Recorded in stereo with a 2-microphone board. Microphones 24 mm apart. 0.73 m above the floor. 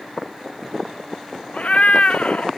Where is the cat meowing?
65° left (ahead or behind), 0.5 m.